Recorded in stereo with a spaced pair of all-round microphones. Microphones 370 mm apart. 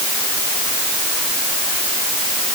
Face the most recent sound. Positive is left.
No sound to turn to.